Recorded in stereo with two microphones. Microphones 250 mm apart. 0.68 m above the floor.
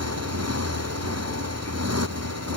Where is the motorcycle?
90° right.